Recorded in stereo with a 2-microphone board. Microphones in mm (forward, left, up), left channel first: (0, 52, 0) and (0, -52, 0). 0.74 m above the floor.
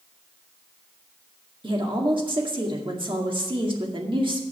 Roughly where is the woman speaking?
Right.